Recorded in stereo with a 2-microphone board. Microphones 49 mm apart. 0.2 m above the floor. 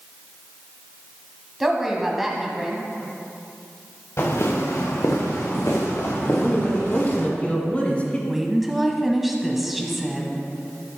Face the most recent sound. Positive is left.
turn(degrees=-5)  # may be behind; listen again after turning